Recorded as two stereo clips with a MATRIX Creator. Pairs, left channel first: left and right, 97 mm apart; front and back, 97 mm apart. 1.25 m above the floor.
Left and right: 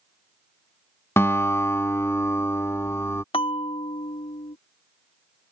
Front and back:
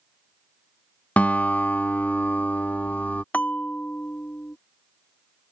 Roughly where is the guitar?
Ahead left.